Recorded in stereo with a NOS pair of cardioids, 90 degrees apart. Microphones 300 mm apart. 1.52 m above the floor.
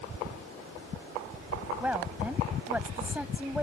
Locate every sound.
1.8 s a woman speaking: 5° right